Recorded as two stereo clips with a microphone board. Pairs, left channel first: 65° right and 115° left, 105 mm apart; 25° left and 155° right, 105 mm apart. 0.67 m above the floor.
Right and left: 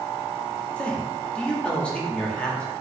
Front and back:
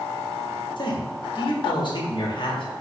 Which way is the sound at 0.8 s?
10° left.